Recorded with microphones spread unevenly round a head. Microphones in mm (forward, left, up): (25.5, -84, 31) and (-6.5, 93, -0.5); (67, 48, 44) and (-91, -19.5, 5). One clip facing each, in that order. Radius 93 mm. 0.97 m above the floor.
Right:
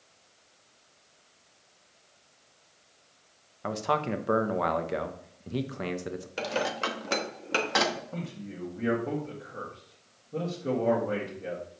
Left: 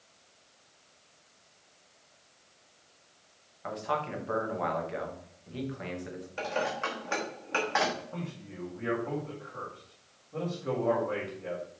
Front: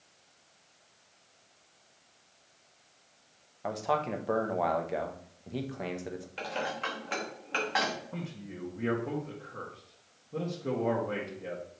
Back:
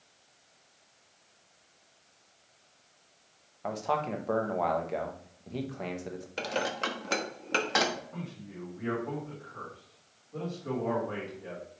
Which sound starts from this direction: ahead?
A man speaking, at 8.1 s.